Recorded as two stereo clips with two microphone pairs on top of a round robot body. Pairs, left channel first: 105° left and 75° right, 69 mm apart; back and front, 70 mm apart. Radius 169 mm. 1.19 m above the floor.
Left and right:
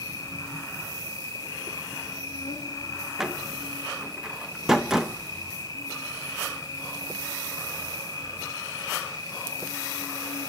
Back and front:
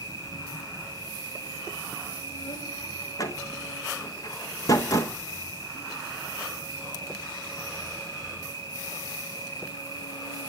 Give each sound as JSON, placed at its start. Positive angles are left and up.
{"t": 0.0, "sound": "an insect", "azimuth_deg": 150, "distance_m": 2.5}
{"t": 3.2, "sound": "a door slam", "azimuth_deg": -150, "distance_m": 0.6}